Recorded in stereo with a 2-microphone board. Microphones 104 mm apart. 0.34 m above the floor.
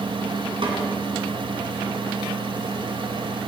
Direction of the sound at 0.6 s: 60° right (ahead or behind).